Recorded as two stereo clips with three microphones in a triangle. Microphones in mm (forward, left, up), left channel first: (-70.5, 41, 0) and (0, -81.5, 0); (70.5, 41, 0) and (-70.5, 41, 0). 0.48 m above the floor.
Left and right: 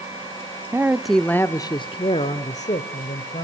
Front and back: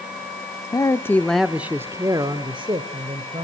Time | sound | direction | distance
0.7 | a man speaking | 5° right | 0.8 m